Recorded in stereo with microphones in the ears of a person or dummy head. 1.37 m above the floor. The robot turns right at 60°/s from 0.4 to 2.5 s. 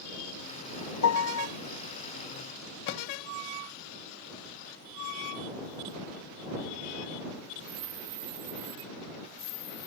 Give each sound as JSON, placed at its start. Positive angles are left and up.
{"t": 1.0, "sound": "a piano", "side_deg": 70}
{"t": 2.9, "sound": "a thud", "side_deg": 60}